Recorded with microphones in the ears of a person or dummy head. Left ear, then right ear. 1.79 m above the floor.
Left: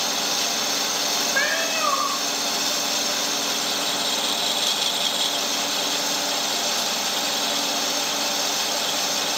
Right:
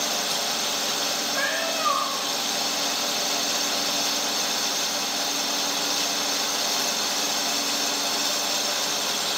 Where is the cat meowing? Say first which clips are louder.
Left 3 dB; 45° left (ahead or behind), 5 m.